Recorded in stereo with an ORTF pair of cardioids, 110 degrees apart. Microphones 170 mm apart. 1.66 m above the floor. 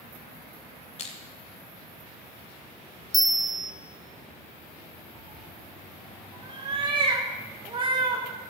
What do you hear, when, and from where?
1.0 s crushing: 40° left, 3 m
3.1 s a bell: straight ahead, 1.1 m
5.2 s a cat meowing: 30° right, 3.5 m